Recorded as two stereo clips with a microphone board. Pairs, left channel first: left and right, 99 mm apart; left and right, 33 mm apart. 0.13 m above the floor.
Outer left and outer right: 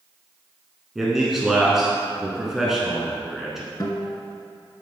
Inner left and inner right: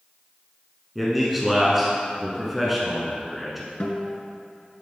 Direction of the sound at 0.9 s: 5° right (ahead or behind).